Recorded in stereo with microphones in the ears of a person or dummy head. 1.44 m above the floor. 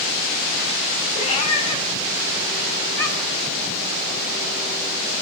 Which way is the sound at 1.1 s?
40° left (ahead or behind).